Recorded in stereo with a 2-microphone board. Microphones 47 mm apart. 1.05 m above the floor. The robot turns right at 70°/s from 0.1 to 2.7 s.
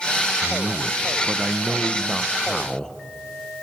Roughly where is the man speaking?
Right.